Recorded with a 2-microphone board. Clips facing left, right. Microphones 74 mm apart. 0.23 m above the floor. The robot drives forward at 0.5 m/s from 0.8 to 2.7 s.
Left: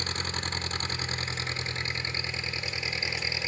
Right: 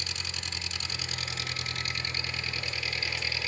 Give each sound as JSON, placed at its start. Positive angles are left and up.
{"t": 0.0, "sound": "an engine running", "side_deg": 45, "distance_m": 0.9}